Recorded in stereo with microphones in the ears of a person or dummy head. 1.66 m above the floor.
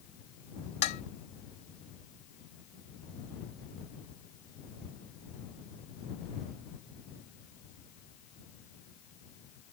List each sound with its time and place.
0.8 s dishes clattering: 45° left (ahead or behind)